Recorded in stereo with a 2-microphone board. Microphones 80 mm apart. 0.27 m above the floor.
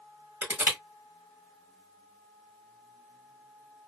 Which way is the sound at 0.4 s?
25° right (ahead or behind).